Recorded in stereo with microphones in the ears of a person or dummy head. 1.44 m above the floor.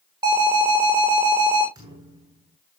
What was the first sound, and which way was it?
An alarm, 30° right (ahead or behind).